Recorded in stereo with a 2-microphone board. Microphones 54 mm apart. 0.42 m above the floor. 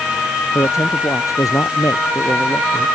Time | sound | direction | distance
0.6 | a man speaking | 75° left (ahead or behind) | ?